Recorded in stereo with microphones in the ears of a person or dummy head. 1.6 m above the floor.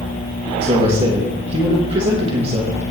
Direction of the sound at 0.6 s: 35° right (ahead or behind).